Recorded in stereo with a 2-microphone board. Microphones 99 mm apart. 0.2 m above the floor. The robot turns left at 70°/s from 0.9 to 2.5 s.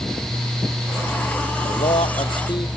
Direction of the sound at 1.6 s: 105° left.